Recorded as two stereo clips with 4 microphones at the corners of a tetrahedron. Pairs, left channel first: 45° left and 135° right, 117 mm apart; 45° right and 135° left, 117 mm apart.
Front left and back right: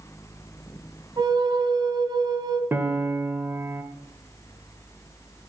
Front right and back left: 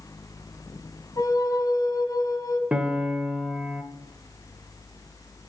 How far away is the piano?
About 1.0 m.